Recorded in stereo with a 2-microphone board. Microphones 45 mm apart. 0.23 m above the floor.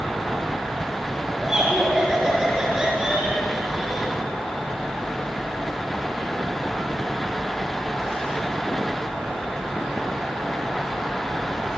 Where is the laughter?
10° right (ahead or behind), 4 m.